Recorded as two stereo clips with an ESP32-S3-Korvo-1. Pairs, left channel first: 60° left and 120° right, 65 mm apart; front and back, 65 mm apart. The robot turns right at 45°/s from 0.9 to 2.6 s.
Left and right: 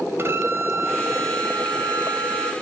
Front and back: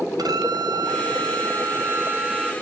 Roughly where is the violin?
Behind.